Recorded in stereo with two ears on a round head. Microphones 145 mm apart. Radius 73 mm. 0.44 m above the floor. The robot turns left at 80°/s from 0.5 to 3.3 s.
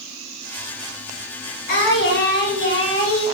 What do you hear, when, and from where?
1.7 s singing: 125° left, 5 m; by 3.2 s straight ahead, 5 m